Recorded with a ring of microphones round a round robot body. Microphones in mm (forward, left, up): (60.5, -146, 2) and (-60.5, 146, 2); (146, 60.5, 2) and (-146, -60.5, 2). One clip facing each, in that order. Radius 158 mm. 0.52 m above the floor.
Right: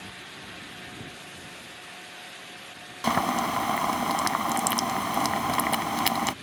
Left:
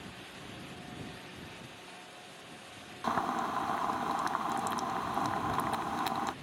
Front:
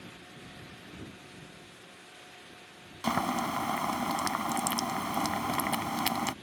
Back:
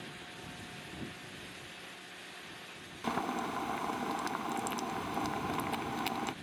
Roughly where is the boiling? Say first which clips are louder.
Right 8 dB, front 4 dB; ahead right.